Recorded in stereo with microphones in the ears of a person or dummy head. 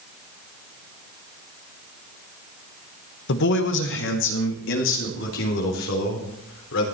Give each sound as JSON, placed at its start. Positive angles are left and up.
{"t": 3.3, "sound": "a man speaking", "side_deg": 60, "distance_m": 1.1}